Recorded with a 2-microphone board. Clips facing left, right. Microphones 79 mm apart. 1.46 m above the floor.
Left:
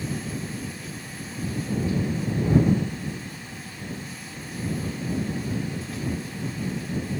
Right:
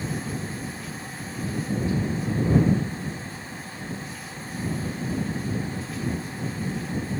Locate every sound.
Only background noise.